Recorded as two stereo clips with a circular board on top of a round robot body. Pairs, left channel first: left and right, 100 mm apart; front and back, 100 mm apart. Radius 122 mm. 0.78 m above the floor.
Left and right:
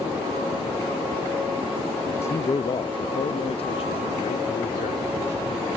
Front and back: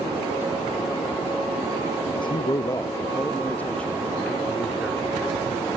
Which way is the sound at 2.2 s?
25° left.